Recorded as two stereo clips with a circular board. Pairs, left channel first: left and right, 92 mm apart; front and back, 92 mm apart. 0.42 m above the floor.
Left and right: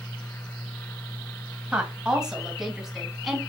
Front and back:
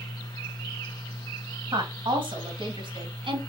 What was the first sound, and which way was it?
A woman speaking, 170° right.